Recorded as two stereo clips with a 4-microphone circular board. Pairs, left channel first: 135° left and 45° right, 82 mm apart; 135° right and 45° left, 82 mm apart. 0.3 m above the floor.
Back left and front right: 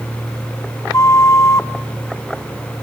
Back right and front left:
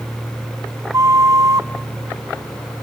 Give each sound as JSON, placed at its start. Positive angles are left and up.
{"t": 0.9, "sound": "a flute", "azimuth_deg": 90, "distance_m": 1.1}